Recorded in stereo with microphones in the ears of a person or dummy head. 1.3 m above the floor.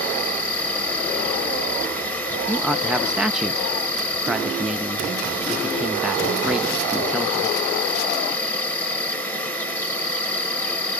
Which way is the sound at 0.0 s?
15° left (ahead or behind).